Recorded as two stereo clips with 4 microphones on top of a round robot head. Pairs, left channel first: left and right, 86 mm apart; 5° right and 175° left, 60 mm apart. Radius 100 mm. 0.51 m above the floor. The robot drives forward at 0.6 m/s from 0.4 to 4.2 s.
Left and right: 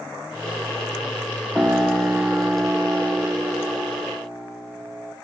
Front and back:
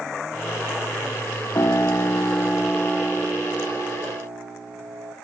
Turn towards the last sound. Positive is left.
turn(degrees=-160)